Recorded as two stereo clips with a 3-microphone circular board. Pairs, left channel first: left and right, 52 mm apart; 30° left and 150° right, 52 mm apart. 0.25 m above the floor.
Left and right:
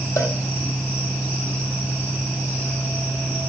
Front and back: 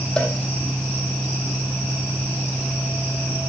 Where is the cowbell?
105° left, 2.5 m.